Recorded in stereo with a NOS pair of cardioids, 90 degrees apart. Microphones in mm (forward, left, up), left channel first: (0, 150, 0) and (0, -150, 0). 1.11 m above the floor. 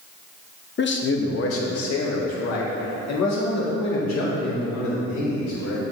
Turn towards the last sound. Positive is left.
turn(degrees=65)